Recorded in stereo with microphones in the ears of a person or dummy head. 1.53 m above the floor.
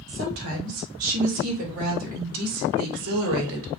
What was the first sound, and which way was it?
A woman speaking, 60° right (ahead or behind).